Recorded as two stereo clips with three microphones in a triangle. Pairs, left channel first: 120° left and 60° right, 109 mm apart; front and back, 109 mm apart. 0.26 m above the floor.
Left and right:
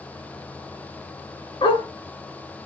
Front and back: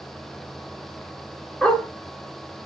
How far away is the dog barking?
About 0.9 m.